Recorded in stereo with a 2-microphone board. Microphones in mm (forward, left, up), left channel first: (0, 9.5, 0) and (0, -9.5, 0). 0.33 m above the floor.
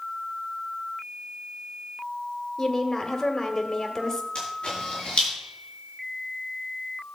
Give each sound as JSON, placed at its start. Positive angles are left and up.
{"t": 2.6, "sound": "a woman speaking", "side_deg": 30, "distance_m": 1.7}
{"t": 4.3, "sound": "a camera shutter", "side_deg": 60, "distance_m": 6.0}